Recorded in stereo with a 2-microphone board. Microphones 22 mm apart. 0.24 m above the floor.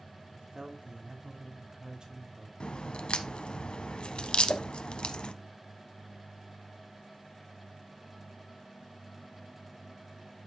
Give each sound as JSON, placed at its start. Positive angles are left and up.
{"t": 0.3, "sound": "a man speaking", "side_deg": -55, "distance_m": 2.5}
{"t": 2.6, "sound": "a crack", "side_deg": 55, "distance_m": 0.7}
{"t": 4.5, "sound": "a whoosh", "side_deg": 60, "distance_m": 0.5}